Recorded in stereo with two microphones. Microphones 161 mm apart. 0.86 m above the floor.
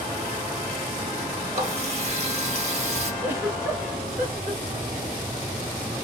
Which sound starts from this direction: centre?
A giggle, at 3.2 s.